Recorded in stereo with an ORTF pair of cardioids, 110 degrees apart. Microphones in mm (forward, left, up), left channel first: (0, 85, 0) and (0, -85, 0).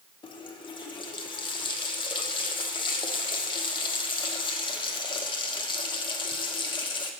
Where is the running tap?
30° left, 1.0 m.